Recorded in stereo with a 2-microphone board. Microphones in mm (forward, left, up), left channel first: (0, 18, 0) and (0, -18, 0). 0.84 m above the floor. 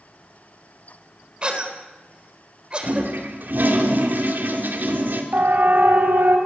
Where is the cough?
30° right (ahead or behind), 4 m.